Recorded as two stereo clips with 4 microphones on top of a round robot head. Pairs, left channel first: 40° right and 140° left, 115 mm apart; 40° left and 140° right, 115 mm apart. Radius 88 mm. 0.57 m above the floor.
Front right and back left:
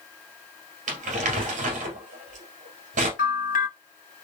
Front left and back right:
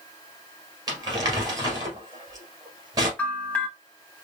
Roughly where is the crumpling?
Behind.